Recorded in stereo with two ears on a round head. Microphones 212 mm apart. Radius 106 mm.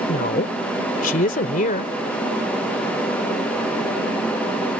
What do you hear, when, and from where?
0.1 s a woman speaking: 40° left (ahead or behind)